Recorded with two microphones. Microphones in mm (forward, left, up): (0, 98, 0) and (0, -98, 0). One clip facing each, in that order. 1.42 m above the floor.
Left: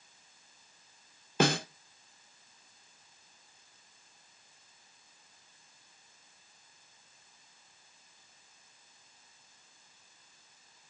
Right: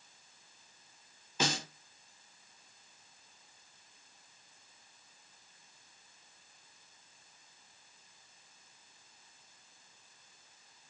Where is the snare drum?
60° left (ahead or behind), 0.6 m.